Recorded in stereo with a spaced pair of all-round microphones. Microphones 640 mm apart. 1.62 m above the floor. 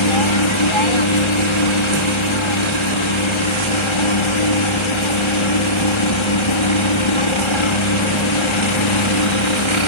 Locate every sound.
0.0 s a helicopter: 45° left (ahead or behind)